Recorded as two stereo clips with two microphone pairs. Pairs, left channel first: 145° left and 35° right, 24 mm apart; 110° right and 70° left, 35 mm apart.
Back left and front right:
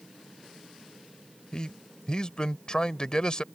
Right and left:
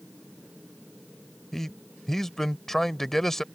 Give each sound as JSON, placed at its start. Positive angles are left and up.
{"t": 1.5, "sound": "a man speaking", "azimuth_deg": 180}